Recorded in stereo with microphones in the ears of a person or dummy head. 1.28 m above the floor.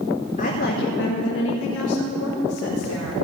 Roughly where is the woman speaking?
Left.